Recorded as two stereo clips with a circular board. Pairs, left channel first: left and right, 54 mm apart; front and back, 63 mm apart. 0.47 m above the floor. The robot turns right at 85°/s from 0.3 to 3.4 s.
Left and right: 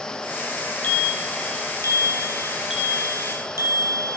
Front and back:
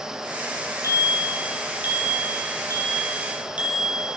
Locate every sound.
0.8 s a bicycle bell: 30° left, 8 m; by 4.2 s 110° right, 8 m